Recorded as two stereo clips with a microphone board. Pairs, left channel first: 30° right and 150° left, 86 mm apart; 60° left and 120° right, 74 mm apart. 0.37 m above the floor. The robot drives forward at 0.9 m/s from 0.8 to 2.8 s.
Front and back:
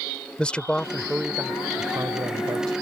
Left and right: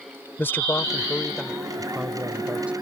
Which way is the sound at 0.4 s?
35° left.